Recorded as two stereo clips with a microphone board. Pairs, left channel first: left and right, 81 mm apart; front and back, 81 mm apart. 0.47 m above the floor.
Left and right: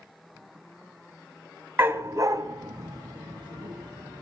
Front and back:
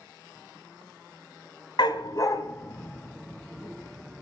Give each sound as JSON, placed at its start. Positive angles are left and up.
{"t": 1.8, "sound": "a dog barking", "azimuth_deg": -25, "distance_m": 1.5}